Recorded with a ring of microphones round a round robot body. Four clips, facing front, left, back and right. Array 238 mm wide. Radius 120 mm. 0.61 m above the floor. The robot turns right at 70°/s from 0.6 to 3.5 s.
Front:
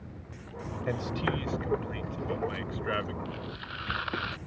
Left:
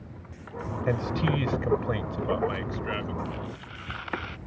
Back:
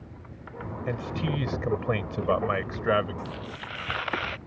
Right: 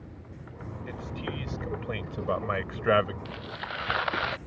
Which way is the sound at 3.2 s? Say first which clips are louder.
Left 1 dB, back 2 dB; 125° right.